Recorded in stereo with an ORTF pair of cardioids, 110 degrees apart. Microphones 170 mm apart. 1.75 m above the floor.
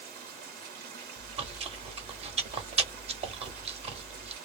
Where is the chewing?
35° right, 0.8 m.